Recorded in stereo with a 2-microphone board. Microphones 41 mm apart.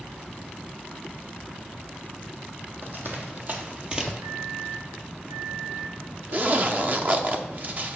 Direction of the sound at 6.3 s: 45° right (ahead or behind).